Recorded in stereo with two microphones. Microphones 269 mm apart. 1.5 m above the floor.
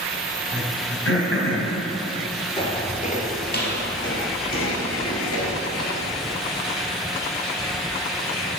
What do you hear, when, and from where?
0.5 s throat clearing: 50° left (ahead or behind), 2 m
2.6 s footsteps: 20° left (ahead or behind), 1.6 m; by 6.4 s 65° left (ahead or behind), 3.5 m